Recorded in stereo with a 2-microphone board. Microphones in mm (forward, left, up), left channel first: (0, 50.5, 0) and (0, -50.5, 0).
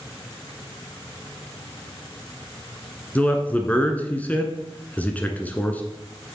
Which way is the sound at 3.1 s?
15° left (ahead or behind).